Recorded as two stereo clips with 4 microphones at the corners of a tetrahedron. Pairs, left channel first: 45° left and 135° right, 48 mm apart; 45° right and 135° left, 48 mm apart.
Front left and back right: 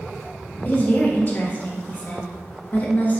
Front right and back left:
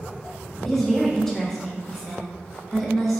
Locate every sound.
0.7 s a woman speaking: 30° left, 0.7 m